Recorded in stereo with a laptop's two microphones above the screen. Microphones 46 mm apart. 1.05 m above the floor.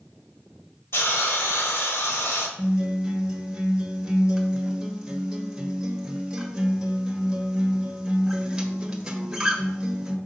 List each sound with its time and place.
0.9 s a hiss: 65° left (ahead or behind), 1.5 m
2.6 s a guitar: 15° right (ahead or behind), 1.5 m